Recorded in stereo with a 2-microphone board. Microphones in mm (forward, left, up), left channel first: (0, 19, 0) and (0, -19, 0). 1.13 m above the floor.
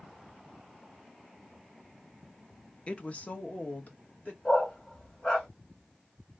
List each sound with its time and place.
2.9 s a woman speaking: 35° left (ahead or behind), 0.7 m; by 4.3 s 50° left (ahead or behind), 2.0 m
4.5 s a dog barking: 30° left (ahead or behind), 2.0 m